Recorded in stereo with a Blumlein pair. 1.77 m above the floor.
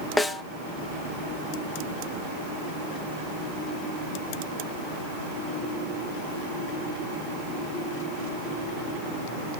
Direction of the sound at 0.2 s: 10° left.